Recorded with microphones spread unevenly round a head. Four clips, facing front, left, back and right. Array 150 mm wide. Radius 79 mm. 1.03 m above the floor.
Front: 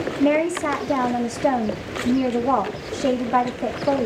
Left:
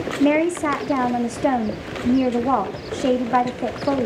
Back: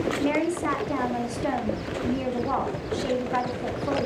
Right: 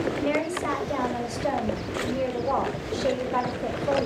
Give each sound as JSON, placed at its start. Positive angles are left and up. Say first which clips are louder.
{"t": 0.2, "sound": "a woman speaking", "louder": "left 8 dB, front 9 dB", "azimuth_deg": 60, "distance_m": 2.0}